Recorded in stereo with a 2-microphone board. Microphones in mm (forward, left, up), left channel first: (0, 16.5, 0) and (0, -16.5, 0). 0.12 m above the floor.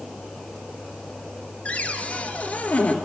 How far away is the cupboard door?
About 1.5 m.